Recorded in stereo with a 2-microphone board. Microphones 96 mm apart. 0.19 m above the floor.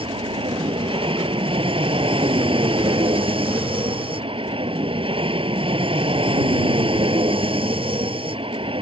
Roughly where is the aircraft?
Right.